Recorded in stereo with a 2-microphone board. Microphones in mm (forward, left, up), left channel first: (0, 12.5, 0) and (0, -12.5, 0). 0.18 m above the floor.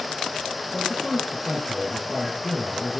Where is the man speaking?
25° right (ahead or behind), 3.5 m.